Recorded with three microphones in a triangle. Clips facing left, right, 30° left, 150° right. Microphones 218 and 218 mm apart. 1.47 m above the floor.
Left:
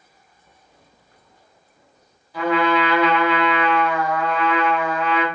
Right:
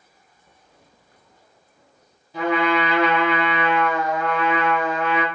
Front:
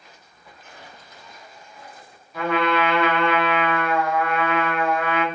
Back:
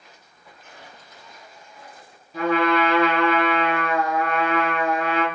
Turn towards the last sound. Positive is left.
turn(degrees=-130)